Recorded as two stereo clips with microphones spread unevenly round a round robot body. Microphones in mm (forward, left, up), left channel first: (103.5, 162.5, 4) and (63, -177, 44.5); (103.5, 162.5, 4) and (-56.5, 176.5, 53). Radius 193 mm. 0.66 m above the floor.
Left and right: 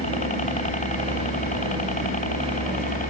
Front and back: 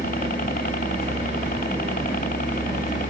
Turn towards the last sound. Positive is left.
turn(degrees=15)